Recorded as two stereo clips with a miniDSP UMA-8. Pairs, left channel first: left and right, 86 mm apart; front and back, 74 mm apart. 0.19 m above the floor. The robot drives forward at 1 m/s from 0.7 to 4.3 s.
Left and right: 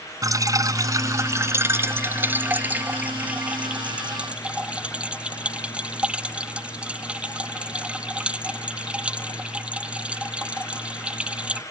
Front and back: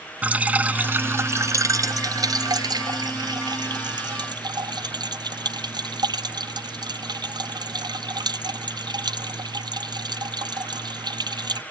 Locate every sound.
0.2 s dripping: 115° right; by 11.6 s 165° right